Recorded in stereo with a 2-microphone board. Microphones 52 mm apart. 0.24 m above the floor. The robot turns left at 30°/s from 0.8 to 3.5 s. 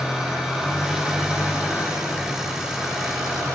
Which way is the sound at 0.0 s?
10° right.